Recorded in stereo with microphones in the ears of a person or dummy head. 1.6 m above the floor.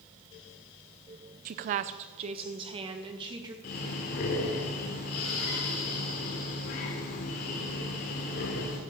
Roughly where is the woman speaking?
Right.